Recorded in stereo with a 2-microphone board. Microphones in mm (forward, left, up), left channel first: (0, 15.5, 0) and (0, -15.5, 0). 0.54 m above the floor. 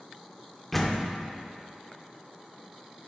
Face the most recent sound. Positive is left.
turn(degrees=5)  # may be behind; listen again after turning